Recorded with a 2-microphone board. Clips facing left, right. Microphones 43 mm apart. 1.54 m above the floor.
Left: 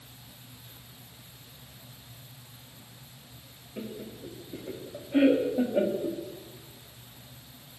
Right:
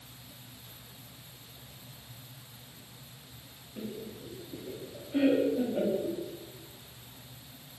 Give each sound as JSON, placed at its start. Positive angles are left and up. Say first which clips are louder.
{"t": 3.8, "sound": "laughter", "louder": "left 1 dB", "side_deg": 35, "distance_m": 3.5}